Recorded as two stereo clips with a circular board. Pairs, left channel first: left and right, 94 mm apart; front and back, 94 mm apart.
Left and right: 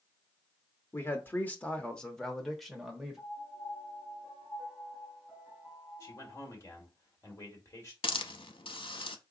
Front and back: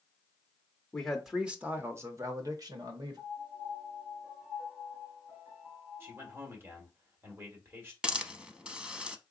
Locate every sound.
0.9 s a man speaking: 75° left, 0.8 m; by 3.2 s 175° right, 1.3 m
3.2 s a piano: 135° left, 2.5 m
6.0 s a man speaking: 130° left, 1.7 m
8.0 s a hiss: 100° left, 0.6 m